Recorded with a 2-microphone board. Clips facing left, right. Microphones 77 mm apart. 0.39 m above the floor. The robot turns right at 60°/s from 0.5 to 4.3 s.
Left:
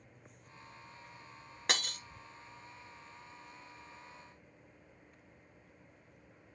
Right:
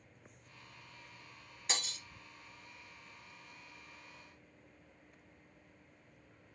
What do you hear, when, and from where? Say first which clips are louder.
1.7 s breaking glass: left 5 dB; 65° left (ahead or behind), 0.8 m; by 2.0 s 50° left (ahead or behind), 0.8 m